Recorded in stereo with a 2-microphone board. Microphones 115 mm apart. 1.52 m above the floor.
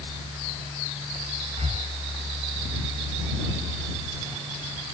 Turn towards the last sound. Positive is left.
turn(degrees=-65)  # may be behind; listen again after turning